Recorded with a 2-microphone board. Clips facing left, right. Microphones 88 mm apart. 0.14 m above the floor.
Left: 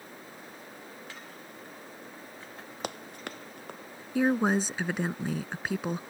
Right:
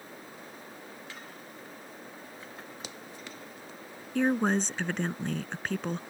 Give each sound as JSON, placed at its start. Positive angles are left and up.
{"t": 2.8, "sound": "running footsteps", "side_deg": 60}
{"t": 4.2, "sound": "a woman speaking", "side_deg": 10}